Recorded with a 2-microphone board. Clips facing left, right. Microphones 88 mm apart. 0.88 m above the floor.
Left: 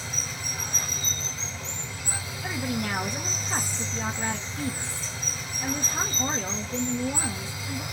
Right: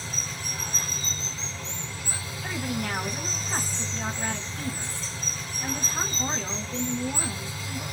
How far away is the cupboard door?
No cupboard door in this recording.